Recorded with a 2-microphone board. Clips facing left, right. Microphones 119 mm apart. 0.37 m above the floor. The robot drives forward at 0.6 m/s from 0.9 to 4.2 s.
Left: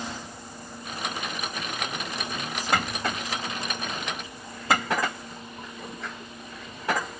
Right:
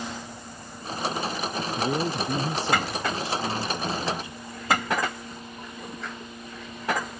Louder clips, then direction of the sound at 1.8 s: Right 8 dB; 75° right (ahead or behind).